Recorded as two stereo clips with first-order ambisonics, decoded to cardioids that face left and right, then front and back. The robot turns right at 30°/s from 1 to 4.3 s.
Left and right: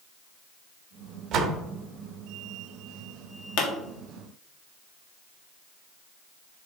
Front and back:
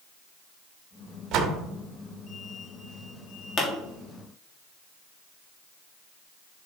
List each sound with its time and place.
1.3 s a door slam: 135° right, 1.0 m; by 1.6 s 125° right, 1.0 m
3.6 s a pop: 60° left, 1.8 m; by 3.7 s 65° left, 1.8 m